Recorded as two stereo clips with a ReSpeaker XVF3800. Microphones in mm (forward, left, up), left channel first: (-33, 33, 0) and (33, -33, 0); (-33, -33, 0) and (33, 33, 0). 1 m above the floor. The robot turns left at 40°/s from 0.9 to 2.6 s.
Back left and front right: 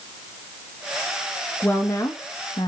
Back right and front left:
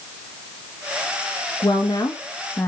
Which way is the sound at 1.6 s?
160° right.